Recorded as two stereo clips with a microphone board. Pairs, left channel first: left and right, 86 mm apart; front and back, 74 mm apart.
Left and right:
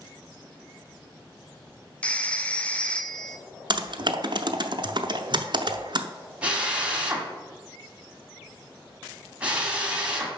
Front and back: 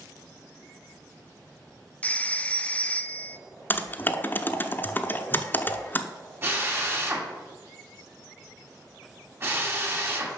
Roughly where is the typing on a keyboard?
Ahead right.